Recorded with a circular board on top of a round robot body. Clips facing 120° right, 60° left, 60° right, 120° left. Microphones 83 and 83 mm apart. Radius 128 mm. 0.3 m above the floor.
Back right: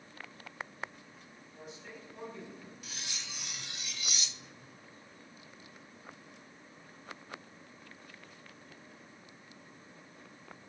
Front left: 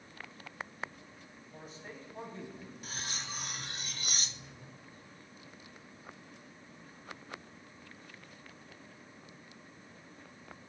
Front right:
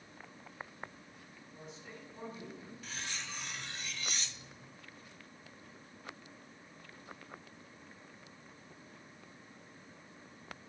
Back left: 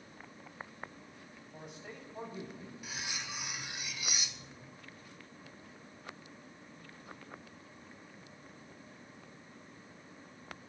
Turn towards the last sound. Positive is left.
turn(degrees=45)